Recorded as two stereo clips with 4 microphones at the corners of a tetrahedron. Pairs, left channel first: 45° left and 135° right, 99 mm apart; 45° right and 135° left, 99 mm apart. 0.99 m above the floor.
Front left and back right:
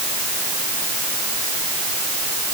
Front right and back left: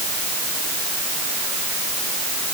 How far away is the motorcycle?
No motorcycle in this recording.